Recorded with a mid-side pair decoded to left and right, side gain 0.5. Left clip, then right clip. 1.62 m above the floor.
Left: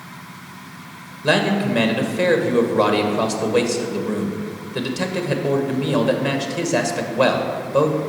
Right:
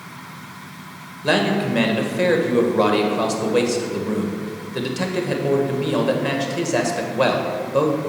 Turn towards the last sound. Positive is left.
turn(degrees=5)